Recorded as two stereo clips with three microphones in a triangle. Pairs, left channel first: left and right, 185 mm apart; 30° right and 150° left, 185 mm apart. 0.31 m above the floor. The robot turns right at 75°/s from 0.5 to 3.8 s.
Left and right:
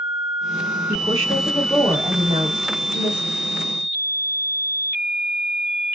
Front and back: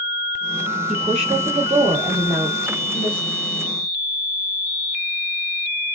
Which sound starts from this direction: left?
A woman speaking, at 0.9 s.